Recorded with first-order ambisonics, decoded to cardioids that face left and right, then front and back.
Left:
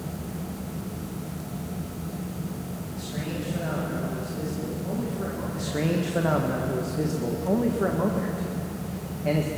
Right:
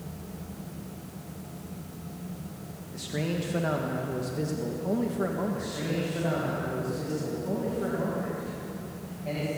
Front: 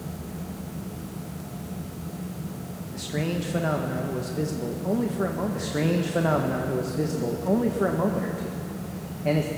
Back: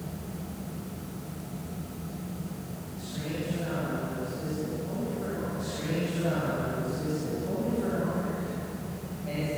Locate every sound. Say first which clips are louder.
2.9 s a man speaking: right 3 dB, front 7 dB; 20° right, 1.7 m
5.5 s a man speaking: left 4 dB, front 6 dB; 35° left, 1.7 m